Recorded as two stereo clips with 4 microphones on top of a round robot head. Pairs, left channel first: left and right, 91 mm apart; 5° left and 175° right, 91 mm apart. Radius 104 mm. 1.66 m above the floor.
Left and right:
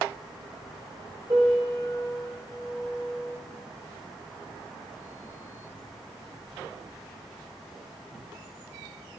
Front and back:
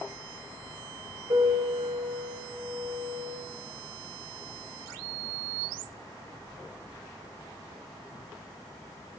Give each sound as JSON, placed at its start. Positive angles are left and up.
{"t": 1.3, "sound": "a piano", "azimuth_deg": -150, "distance_m": 2.5}